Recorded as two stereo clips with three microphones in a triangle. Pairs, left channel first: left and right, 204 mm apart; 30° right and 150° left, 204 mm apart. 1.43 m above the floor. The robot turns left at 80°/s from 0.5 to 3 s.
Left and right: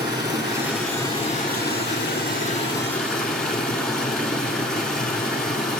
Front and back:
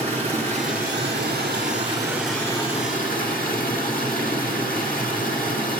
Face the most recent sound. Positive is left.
turn(degrees=5)